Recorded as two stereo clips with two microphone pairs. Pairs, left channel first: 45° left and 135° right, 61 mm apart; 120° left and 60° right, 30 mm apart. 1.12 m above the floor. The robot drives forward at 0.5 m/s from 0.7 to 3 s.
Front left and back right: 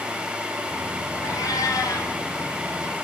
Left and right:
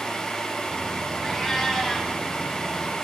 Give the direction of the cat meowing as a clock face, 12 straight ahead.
11 o'clock.